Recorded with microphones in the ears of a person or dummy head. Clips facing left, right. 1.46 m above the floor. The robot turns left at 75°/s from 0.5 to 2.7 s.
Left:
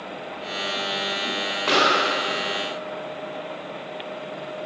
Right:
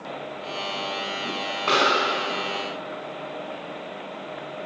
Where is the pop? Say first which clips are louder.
Left 1 dB; 5° left (ahead or behind), 3.5 m; by 2.0 s 15° right (ahead or behind), 3.5 m.